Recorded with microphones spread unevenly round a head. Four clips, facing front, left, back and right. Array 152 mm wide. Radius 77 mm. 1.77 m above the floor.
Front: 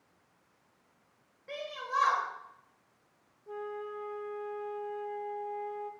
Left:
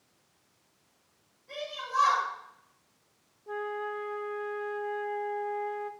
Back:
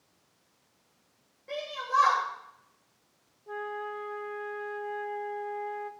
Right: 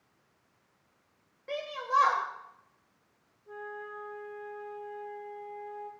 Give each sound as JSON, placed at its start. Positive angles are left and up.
{"t": 1.5, "sound": "a shout", "azimuth_deg": -100, "distance_m": 7.0}
{"t": 3.5, "sound": "a flute", "azimuth_deg": 110, "distance_m": 0.9}